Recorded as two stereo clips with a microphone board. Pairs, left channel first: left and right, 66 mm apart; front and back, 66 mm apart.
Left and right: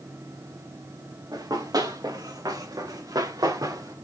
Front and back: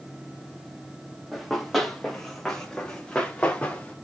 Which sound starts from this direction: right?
Running footsteps, at 1.3 s.